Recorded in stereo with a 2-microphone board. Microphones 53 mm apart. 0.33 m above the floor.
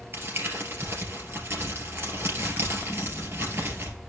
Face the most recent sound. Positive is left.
turn(degrees=-50)  # may be behind; listen again after turning